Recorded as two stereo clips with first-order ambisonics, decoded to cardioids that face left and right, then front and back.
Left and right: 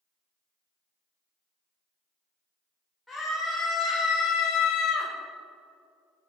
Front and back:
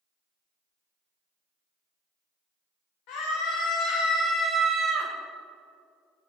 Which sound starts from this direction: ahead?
A scream, at 3.1 s.